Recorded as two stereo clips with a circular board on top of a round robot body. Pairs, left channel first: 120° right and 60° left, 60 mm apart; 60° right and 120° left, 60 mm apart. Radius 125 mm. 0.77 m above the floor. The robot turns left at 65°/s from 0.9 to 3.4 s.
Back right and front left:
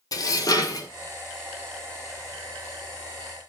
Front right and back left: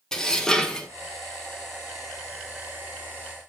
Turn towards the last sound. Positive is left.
turn(degrees=60)